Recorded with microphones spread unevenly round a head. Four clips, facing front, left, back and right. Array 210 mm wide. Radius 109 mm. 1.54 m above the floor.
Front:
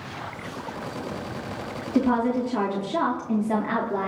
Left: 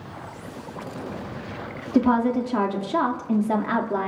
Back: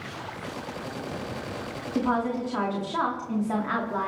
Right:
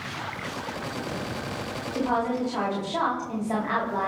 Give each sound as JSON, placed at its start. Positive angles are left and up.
{"t": 1.9, "sound": "a woman speaking", "azimuth_deg": 70, "distance_m": 3.0}